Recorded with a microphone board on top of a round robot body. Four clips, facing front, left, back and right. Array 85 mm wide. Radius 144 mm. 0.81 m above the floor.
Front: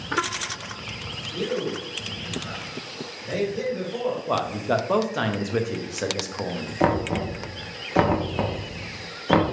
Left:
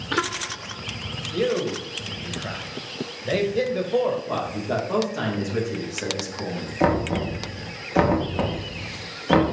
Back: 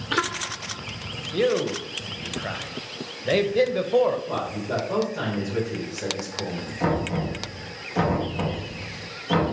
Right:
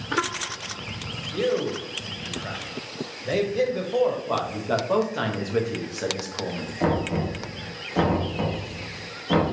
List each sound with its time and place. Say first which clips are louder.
1.3 s a man speaking: left 1 dB, back 5 dB; 170° left, 0.7 m
4.3 s a man speaking: right 1 dB, front 4 dB; 15° right, 0.9 m
6.8 s knocking: left 3 dB, front 3 dB; 35° left, 1.0 m